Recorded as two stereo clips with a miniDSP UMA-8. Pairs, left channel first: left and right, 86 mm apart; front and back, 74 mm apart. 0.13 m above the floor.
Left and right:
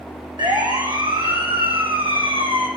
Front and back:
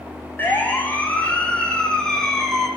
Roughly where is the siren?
Ahead right.